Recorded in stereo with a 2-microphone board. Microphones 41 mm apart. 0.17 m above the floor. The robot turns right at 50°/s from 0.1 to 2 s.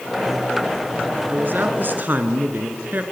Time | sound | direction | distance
1.3 | a man speaking | 100° right | 2 m